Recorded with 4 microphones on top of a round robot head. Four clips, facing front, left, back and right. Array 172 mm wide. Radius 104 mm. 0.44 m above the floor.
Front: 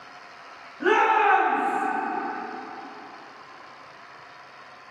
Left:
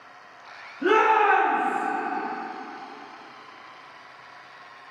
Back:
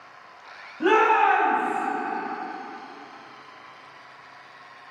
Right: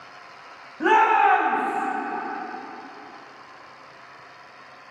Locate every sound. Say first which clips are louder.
0.8 s a shout: right 2 dB, back 1 dB; 115° right, 4 m; by 1.9 s 100° right, 4 m